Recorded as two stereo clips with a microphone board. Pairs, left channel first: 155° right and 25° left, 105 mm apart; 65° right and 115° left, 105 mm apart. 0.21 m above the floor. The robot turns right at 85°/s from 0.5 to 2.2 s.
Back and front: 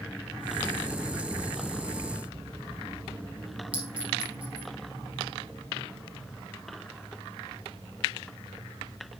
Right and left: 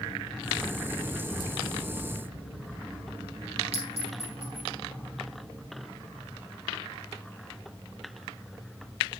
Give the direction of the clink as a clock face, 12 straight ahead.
9 o'clock.